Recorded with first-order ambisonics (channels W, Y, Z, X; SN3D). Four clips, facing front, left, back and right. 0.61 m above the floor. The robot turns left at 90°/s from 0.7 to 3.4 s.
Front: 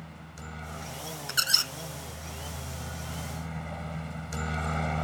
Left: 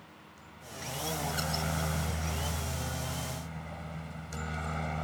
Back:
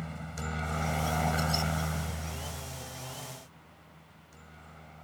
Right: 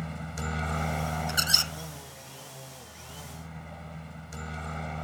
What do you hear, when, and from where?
0.0 s a helicopter: 115° right; by 5.0 s 5° left
1.3 s a squeak: 25° right; by 1.7 s 65° right